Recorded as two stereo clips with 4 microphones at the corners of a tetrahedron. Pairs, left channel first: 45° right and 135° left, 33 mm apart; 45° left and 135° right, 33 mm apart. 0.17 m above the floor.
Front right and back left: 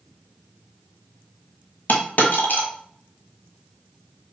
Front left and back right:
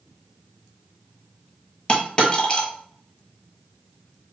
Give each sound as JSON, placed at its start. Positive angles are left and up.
{"t": 1.9, "sound": "a dropped coin", "azimuth_deg": -15, "distance_m": 0.9}